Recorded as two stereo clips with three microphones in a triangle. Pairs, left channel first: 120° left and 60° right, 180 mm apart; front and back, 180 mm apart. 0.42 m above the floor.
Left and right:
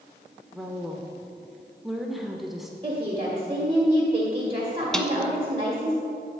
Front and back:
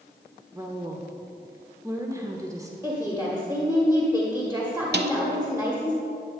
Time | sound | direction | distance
0.5 | a woman speaking | 145° right | 0.9 m
2.8 | a woman speaking | 105° right | 1.3 m
4.9 | a snare drum | 155° right | 0.7 m